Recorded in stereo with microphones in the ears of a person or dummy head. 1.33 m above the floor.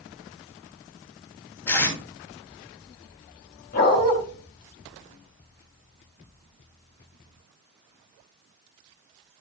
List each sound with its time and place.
1.7 s tape being pulled: 10° left (ahead or behind), 3 m
3.7 s a dog barking: 50° left (ahead or behind), 5.5 m